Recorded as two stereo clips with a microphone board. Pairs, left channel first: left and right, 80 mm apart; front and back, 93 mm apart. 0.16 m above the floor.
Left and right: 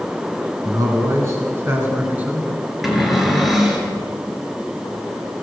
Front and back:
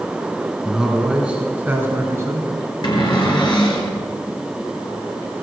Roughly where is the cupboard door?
Ahead.